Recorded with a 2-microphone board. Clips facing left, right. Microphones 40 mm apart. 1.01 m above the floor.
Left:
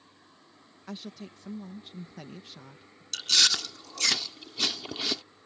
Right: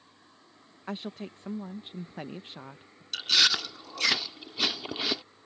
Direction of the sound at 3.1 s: 15° right (ahead or behind).